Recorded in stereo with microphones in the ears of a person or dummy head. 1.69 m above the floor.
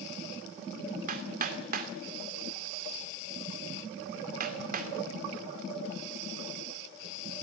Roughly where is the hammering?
Right.